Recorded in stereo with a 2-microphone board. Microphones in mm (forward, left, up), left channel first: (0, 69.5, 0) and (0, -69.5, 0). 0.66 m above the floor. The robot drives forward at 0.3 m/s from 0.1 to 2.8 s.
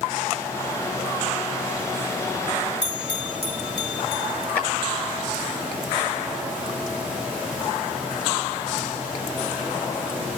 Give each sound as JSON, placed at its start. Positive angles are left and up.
{"t": 2.8, "sound": "a bell", "side_deg": -45, "distance_m": 5.0}
{"t": 4.5, "sound": "a clap", "side_deg": 15, "distance_m": 6.5}